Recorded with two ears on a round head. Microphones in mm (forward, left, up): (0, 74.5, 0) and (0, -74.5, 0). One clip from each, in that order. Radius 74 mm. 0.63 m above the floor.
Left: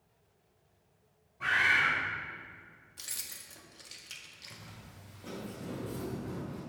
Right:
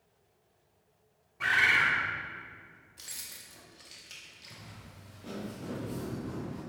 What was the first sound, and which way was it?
A bird, 55° right (ahead or behind).